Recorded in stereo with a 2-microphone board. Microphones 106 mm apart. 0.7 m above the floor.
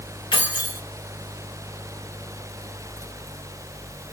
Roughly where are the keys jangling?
Left.